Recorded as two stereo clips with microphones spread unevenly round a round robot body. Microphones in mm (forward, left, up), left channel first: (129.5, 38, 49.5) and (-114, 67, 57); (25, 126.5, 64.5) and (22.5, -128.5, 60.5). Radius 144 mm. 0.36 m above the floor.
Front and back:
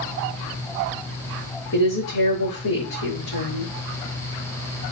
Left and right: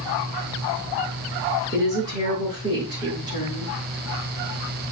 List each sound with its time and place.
1.7 s a woman speaking: 15° right, 6.5 m